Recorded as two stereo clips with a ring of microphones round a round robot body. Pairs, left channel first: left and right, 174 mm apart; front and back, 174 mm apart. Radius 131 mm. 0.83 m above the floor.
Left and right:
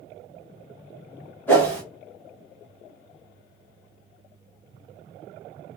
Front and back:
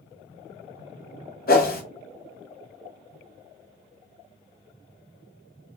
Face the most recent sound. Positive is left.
turn(degrees=10)